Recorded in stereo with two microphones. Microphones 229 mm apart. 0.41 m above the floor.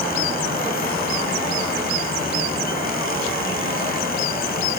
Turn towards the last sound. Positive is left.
No sound to turn to.